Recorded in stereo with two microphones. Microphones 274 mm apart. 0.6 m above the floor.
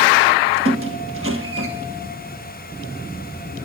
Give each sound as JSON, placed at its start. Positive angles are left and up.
{"t": 0.7, "sound": "a squeak", "side_deg": -55, "distance_m": 1.5}